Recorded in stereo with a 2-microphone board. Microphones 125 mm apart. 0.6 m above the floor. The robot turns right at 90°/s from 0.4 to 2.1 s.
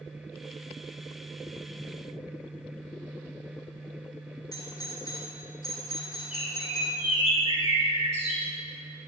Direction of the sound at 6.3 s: 45° left (ahead or behind).